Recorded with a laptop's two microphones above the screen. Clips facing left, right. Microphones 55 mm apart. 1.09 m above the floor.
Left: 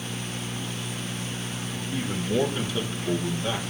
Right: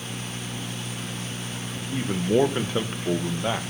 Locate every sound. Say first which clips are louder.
1.8 s a man speaking: right 3 dB; 20° right (ahead or behind), 0.8 m; by 3.7 s 30° right (ahead or behind), 1.4 m